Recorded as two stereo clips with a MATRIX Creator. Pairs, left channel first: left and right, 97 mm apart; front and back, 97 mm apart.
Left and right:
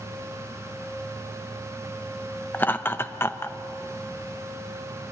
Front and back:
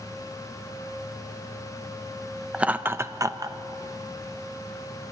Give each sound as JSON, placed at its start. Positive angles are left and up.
{"t": 2.5, "sound": "laughter", "azimuth_deg": 115, "distance_m": 0.7}